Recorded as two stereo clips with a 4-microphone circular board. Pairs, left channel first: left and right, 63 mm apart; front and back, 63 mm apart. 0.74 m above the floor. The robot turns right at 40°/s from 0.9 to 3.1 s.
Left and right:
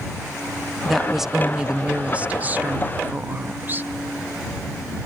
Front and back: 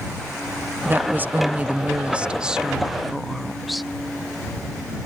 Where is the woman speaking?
175° left; by 3.9 s 95° right.